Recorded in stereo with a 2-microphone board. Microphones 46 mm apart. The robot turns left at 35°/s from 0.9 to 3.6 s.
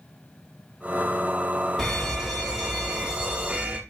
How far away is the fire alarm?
About 2.5 m.